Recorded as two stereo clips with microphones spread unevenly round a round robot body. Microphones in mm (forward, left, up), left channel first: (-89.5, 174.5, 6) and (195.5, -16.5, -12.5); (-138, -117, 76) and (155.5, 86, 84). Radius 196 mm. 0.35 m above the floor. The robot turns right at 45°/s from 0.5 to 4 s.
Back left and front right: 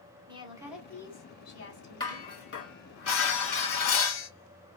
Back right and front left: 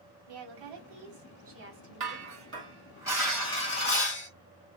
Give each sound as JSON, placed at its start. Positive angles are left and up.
{"t": 0.3, "sound": "a woman speaking", "azimuth_deg": 40, "distance_m": 2.5}
{"t": 2.0, "sound": "dishes clattering", "azimuth_deg": 70, "distance_m": 3.0}